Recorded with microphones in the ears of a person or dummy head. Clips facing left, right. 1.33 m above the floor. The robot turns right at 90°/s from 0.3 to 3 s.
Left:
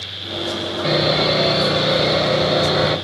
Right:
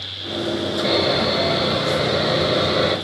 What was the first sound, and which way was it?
Sawing, straight ahead.